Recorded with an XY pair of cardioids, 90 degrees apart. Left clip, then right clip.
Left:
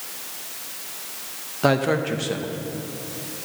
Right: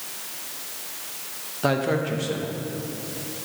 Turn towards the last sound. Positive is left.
turn(degrees=30)